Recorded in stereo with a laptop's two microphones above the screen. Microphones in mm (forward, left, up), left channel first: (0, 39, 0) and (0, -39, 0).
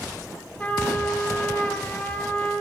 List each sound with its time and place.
0.6 s a trumpet: 15° left (ahead or behind), 9 m